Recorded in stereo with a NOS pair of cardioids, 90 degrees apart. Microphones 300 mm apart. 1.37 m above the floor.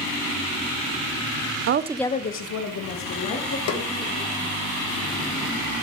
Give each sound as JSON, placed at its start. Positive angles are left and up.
{"t": 1.7, "sound": "a woman speaking", "azimuth_deg": -50, "distance_m": 0.7}
{"t": 3.7, "sound": "a snare drum", "azimuth_deg": 55, "distance_m": 1.4}